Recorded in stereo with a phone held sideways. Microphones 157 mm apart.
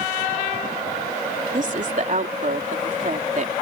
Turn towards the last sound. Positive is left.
turn(degrees=-55)  # may be behind; listen again after turning